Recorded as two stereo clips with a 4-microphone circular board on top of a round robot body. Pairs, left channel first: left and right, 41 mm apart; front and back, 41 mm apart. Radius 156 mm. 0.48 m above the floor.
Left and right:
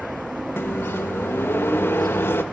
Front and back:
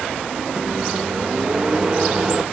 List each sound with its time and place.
0.6 s a microwave: 105° left, 1.6 m